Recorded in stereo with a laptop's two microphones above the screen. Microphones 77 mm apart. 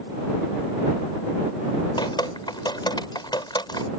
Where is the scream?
I don't hear a scream.